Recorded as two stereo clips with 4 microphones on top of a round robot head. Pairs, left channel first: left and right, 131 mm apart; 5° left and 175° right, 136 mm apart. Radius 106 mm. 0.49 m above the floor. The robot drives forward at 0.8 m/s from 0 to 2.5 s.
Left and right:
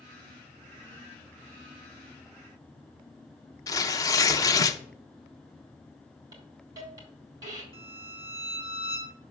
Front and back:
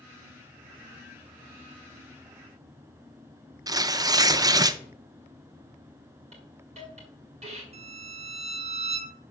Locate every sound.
3.7 s tearing paper: 135° left, 0.5 m
6.3 s a hiss: 150° right, 1.8 m
7.7 s a violin: 155° left, 1.0 m